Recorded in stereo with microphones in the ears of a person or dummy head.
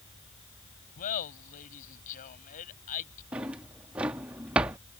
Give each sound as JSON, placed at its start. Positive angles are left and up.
{"t": 1.0, "sound": "laughter", "side_deg": 50}
{"t": 3.3, "sound": "a drawer", "side_deg": -5}